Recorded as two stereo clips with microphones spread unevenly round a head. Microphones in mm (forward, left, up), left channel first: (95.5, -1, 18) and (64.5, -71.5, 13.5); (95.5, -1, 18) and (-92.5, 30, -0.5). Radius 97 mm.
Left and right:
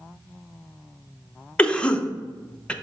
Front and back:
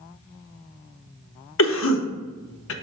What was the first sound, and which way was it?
A cough, 10° right.